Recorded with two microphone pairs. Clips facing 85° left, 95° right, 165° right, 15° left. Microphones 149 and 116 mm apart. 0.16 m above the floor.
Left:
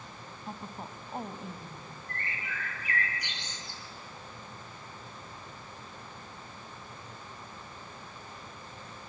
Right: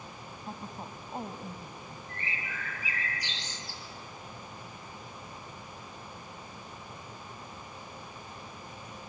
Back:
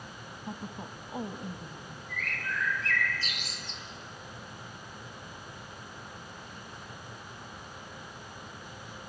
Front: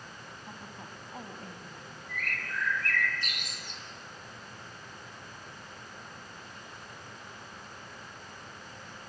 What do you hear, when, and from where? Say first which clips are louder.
0.5 s a woman speaking: even, back 8 dB; 160° left, 1.2 m
2.1 s a bird: left 1 dB, back 1 dB; 50° left, 2.5 m